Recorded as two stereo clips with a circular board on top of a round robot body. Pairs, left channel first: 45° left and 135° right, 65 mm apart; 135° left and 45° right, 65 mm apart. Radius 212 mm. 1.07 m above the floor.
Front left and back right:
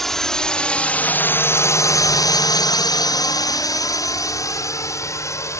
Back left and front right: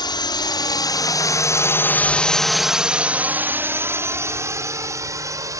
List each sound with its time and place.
0.0 s a drone: 130° left; by 5.6 s 5° right